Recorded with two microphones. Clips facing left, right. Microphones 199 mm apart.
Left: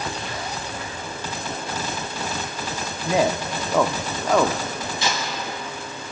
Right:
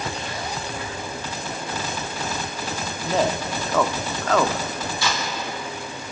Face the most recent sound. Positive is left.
turn(degrees=20)  # may be behind; listen again after turning